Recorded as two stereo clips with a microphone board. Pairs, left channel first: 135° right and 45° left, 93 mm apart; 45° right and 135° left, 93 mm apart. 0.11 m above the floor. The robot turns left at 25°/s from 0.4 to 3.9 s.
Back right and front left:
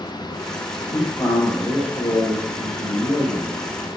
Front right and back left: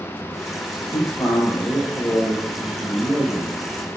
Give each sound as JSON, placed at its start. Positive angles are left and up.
{"t": 0.9, "sound": "a man speaking", "azimuth_deg": -80, "distance_m": 5.0}